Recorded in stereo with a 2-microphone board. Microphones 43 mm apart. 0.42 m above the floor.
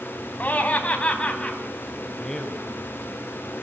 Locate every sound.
0.4 s laughter: 35° left (ahead or behind), 3.5 m; by 1.6 s 20° left (ahead or behind), 3.5 m
2.2 s a man speaking: 15° left (ahead or behind), 2 m